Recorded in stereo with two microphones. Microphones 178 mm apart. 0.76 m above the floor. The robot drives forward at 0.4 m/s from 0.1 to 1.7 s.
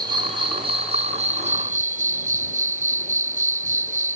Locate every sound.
0.0 s an insect: 25° right (ahead or behind); by 4.2 s 45° right (ahead or behind)